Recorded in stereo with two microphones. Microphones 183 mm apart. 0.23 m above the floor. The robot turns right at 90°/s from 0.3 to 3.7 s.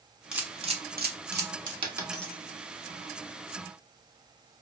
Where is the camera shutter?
5° right (ahead or behind), 0.7 m; by 1.7 s 45° right (ahead or behind), 0.7 m.